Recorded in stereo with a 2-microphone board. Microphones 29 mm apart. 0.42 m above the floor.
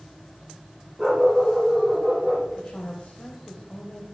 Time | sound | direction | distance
1.0 | a dog barking | 5° right (ahead or behind) | 6.5 m
2.6 | a woman speaking | 40° left (ahead or behind) | 1.9 m